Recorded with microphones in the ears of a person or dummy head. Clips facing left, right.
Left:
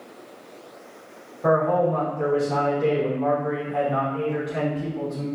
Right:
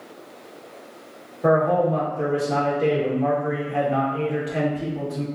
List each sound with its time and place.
1.4 s a man speaking: 30° right (ahead or behind), 1.5 m